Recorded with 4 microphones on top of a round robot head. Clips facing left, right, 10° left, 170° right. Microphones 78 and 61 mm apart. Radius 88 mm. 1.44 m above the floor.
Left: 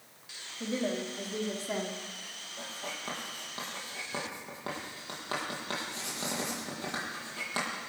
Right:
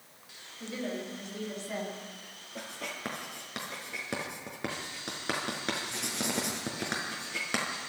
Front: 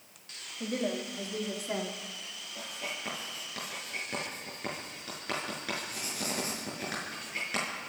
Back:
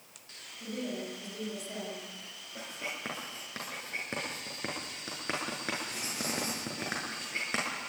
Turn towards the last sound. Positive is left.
turn(degrees=-105)